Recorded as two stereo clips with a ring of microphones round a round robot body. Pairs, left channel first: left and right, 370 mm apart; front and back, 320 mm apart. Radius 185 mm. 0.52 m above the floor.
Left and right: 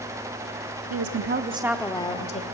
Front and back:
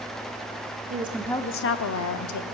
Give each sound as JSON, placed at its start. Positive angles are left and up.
{"t": 0.9, "sound": "a woman speaking", "azimuth_deg": -120, "distance_m": 0.9}